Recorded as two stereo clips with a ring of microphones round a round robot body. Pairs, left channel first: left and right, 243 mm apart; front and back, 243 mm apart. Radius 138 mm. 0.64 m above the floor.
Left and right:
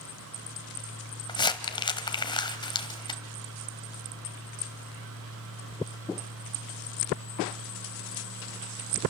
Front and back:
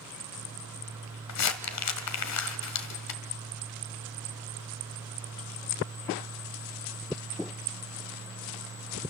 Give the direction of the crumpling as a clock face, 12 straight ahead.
11 o'clock.